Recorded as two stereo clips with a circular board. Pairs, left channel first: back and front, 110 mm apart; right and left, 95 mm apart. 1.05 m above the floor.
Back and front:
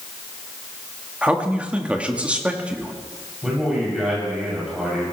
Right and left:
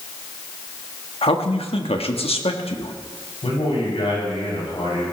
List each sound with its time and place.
1.2 s a man speaking: 80° right, 1.3 m
3.4 s a man speaking: 85° right, 7 m